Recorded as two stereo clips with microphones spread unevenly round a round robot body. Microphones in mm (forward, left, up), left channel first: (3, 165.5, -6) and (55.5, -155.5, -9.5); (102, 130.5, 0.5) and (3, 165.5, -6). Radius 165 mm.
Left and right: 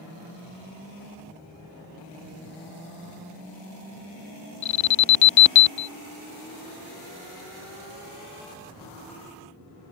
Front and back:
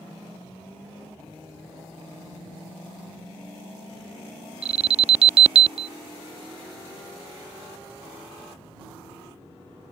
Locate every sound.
4.6 s an alarm: 140° left